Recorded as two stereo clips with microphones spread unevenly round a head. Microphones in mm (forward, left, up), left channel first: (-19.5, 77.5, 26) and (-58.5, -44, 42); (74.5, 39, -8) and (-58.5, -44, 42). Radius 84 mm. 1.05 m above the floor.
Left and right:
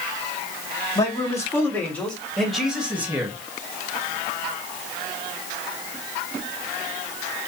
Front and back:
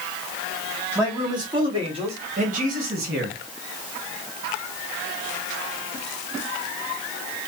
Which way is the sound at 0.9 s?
135° left.